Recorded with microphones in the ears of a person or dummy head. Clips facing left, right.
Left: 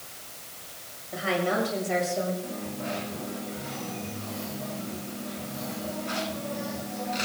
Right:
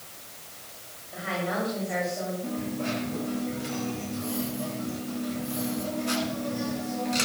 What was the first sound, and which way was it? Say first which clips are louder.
A woman speaking: left 4 dB; 60° left (ahead or behind).